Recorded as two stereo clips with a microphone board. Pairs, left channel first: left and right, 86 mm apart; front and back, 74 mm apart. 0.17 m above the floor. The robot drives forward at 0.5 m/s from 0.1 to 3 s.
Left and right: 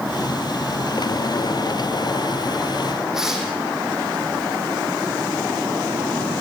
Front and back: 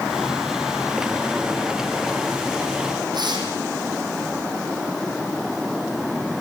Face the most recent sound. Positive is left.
turn(degrees=-175)